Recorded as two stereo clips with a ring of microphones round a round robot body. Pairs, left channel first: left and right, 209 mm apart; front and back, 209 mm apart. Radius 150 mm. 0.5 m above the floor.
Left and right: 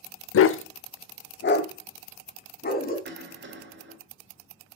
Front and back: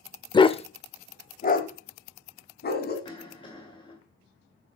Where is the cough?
70° right, 2.0 m.